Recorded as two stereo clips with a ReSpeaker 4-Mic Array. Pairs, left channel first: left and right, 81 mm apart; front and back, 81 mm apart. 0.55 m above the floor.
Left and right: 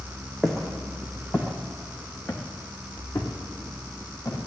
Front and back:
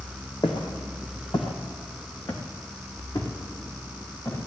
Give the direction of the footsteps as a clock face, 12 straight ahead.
12 o'clock.